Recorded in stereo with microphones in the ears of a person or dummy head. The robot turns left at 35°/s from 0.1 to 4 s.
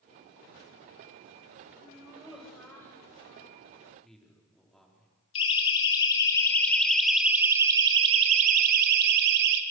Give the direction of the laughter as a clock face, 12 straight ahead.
5 o'clock.